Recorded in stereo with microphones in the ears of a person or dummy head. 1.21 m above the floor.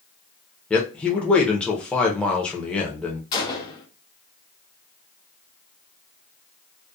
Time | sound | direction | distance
0.7 | a man speaking | 10° left (ahead or behind) | 0.6 m
3.3 | a gunshot | 25° left (ahead or behind) | 0.6 m